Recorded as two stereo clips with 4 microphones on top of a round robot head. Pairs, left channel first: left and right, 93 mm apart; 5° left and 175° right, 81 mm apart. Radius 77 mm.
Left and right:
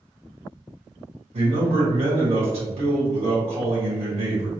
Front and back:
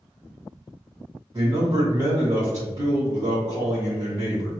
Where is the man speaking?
120° right, 1.7 m.